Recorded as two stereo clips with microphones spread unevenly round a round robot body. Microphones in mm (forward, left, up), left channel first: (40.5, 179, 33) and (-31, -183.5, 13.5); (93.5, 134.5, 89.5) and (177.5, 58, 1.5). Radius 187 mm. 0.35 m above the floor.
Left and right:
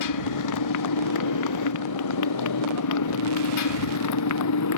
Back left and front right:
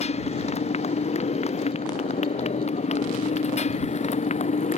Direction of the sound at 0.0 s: 120° left.